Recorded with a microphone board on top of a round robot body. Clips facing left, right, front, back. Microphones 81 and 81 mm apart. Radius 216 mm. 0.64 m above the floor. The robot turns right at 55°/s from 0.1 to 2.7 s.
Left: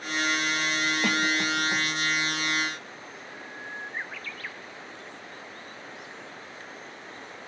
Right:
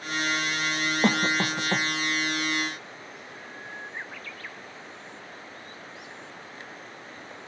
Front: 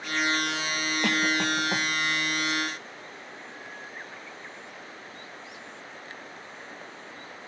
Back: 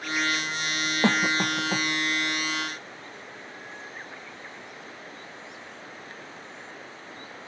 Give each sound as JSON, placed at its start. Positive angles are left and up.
{"t": 1.0, "sound": "a cough", "azimuth_deg": -125, "distance_m": 0.8}